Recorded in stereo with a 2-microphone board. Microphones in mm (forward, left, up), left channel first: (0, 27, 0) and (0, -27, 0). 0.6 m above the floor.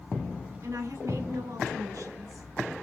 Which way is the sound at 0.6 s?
75° right (ahead or behind).